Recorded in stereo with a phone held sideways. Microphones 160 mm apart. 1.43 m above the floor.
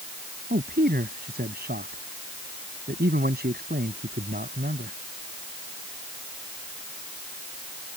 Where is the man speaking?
75° right (ahead or behind).